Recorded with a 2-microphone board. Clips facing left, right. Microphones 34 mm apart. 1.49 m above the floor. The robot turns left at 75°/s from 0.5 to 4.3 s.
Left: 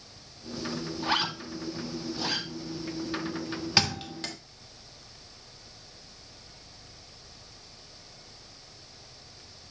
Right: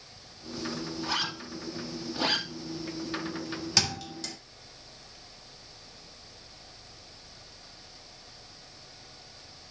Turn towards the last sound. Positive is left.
turn(degrees=45)  # may be behind; listen again after turning